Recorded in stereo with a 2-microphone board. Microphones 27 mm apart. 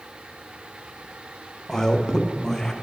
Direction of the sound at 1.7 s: 20° left (ahead or behind).